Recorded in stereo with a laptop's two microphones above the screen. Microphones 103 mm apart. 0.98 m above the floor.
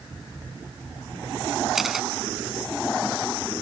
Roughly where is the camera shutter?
Centre.